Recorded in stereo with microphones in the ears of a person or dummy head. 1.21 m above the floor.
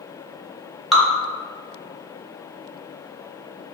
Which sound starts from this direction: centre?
Dripping, at 0.9 s.